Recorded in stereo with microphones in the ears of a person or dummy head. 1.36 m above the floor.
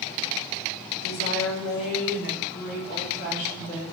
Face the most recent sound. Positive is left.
turn(degrees=35)  # may be behind; listen again after turning